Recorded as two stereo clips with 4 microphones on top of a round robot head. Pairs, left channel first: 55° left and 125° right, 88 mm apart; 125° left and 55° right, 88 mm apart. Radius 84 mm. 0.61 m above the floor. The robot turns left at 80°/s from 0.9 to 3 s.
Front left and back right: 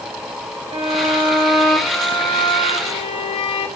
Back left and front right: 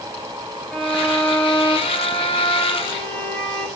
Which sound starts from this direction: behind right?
A violin, at 0.7 s.